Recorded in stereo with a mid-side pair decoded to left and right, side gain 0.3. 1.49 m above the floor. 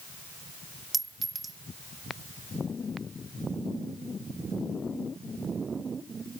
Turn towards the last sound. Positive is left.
turn(degrees=-50)